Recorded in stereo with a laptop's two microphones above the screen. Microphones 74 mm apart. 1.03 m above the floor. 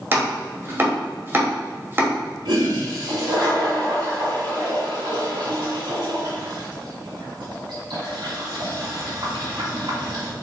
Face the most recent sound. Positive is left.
turn(degrees=-70)  # may be behind; listen again after turning